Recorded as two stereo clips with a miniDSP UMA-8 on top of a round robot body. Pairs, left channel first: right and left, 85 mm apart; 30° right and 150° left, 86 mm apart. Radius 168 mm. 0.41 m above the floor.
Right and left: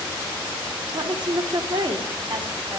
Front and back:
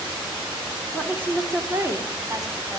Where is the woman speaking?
75° left, 1.6 m; by 2.8 s 110° left, 1.9 m.